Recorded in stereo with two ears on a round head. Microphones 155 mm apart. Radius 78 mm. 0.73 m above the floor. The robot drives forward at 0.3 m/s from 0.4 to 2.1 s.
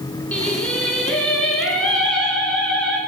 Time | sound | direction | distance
0.3 | singing | 10° left (ahead or behind) | 3 m